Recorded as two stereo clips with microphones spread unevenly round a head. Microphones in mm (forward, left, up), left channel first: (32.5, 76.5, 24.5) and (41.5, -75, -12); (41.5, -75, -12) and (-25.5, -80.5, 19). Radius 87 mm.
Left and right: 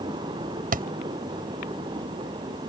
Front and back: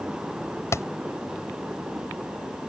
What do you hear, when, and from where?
0.7 s a thud: 50° right